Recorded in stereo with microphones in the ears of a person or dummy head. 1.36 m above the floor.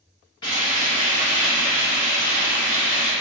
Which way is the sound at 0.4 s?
15° left (ahead or behind).